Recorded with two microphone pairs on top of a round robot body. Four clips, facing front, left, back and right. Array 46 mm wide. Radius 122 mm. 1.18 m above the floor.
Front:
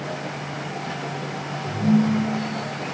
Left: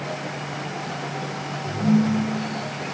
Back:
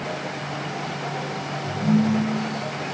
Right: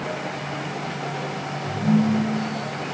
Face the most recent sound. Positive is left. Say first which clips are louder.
# even, front 1 dB
turn(degrees=115)